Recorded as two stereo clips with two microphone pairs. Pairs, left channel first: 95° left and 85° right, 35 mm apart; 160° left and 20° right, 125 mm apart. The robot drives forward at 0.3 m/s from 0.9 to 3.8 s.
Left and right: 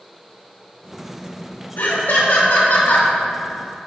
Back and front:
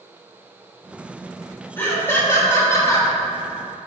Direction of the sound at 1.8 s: 90° left.